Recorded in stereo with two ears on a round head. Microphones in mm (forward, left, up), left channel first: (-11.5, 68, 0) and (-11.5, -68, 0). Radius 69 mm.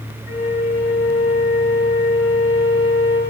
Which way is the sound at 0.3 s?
60° left (ahead or behind).